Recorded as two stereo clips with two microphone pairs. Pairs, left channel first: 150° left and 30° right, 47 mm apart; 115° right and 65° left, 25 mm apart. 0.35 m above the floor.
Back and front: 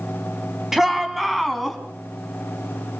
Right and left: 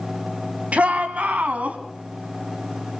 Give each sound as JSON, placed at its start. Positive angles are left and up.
{"t": 0.7, "sound": "a shout", "azimuth_deg": 50, "distance_m": 3.0}